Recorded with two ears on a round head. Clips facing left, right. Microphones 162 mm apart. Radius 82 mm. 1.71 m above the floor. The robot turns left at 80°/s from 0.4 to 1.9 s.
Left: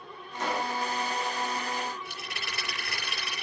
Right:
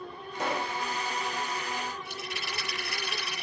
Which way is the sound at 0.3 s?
45° right (ahead or behind).